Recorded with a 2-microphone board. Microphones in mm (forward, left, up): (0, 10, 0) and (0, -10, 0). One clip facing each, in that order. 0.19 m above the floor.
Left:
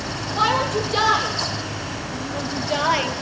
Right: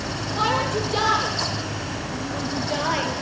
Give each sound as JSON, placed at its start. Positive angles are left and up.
{"t": 0.4, "sound": "a shout", "side_deg": 15, "distance_m": 5.0}